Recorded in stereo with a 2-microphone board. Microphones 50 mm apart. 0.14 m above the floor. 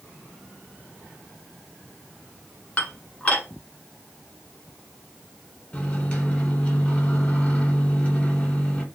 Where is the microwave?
30° left (ahead or behind), 1.3 m.